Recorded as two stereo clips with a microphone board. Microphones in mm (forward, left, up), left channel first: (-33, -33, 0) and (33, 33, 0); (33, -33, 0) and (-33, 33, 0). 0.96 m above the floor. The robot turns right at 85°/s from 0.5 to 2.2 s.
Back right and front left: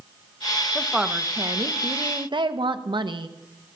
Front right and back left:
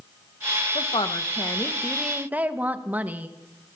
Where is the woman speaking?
60° right, 0.9 m; by 3.3 s 65° left, 0.9 m.